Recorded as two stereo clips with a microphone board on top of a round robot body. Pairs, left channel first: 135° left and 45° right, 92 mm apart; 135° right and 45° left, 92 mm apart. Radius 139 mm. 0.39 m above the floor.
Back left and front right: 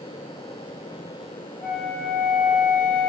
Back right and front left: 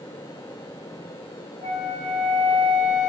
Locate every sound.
1.6 s a flute: 65° left, 4 m